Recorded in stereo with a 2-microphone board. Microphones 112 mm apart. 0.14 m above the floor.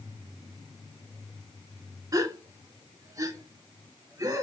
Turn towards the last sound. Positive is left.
turn(degrees=-30)  # may be behind; listen again after turning